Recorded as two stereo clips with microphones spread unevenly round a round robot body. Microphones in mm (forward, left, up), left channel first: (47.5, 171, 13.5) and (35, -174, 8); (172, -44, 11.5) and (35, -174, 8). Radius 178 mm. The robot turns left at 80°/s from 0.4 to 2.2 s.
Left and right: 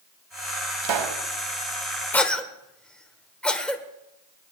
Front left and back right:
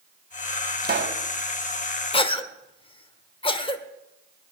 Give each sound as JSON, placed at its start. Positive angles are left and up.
{"t": 0.8, "sound": "a pop", "azimuth_deg": -95, "distance_m": 1.2}
{"t": 2.1, "sound": "a cough", "azimuth_deg": 5, "distance_m": 1.4}